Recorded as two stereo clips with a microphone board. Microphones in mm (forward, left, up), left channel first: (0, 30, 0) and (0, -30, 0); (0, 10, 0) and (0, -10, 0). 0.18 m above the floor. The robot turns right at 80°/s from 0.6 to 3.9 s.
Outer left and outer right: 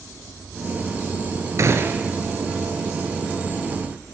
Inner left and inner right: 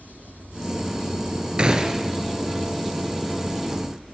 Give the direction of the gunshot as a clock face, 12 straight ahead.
2 o'clock.